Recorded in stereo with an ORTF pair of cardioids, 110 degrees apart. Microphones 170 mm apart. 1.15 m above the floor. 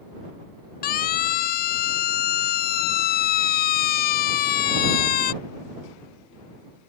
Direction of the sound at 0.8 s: 65° left.